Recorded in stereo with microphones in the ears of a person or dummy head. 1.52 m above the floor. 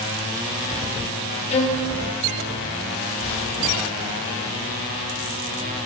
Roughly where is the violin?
Left.